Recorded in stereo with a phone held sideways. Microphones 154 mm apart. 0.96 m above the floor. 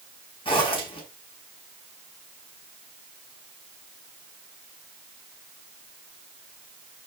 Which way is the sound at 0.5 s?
35° left (ahead or behind).